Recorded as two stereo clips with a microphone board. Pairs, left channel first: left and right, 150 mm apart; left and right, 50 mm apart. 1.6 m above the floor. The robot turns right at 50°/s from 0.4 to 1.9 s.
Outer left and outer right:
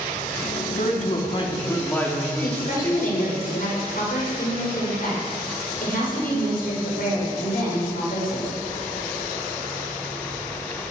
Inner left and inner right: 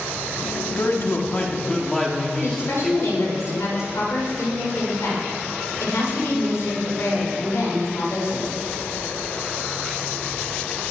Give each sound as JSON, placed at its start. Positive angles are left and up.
{"t": 0.8, "sound": "a man speaking", "azimuth_deg": 115, "distance_m": 3.0}
{"t": 2.4, "sound": "a woman speaking", "side_deg": 70, "distance_m": 7.0}